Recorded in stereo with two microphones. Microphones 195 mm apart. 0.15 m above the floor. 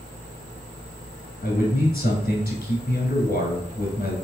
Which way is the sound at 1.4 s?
50° left (ahead or behind).